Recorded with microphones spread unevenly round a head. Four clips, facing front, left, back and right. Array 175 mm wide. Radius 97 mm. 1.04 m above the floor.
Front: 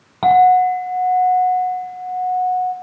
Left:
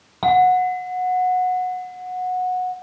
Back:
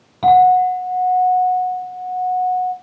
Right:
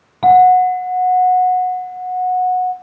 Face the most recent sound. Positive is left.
turn(degrees=15)